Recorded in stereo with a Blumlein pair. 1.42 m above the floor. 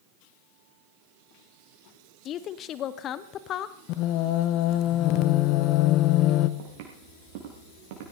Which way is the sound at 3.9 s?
40° left.